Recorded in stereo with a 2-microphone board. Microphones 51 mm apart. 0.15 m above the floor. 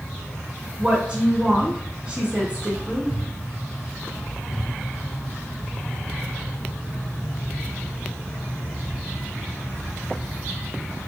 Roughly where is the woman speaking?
Right.